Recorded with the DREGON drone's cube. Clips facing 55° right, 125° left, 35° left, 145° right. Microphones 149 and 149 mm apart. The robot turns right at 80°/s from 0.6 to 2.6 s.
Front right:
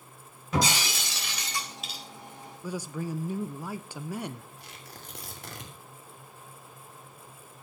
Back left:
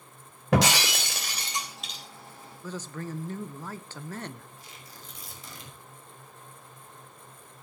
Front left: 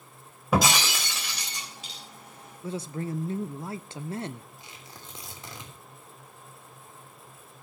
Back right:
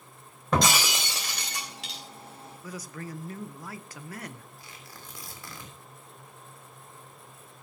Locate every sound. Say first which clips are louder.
0.5 s breaking glass: back left 4 dB, front left 1 dB; 115° left, 3 m; by 2.0 s 130° right, 3 m
2.6 s a man speaking: front right 3 dB, front left 7 dB; 10° left, 0.6 m
4.6 s tearing paper: front right 2 dB, front left 1 dB; 35° right, 3 m